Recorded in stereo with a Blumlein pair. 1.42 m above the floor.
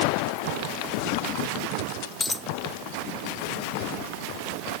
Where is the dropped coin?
10° left.